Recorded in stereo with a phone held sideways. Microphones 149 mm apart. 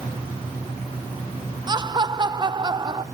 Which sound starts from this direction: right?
Laughter, at 1.7 s.